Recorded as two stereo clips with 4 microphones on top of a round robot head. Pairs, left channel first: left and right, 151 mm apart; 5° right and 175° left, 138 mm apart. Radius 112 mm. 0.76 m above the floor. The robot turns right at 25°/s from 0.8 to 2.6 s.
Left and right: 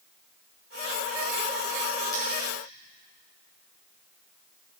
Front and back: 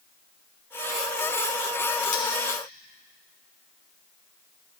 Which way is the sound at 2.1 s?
15° left.